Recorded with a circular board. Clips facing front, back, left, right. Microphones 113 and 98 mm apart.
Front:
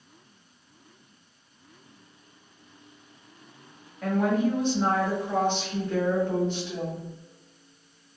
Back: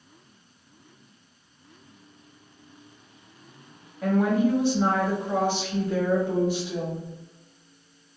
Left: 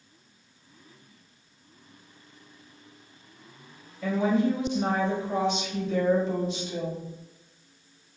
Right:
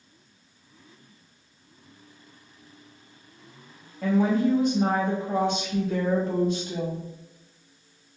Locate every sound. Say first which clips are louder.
4.0 s a woman speaking: back 2 dB, right 2 dB; 100° right, 1.4 m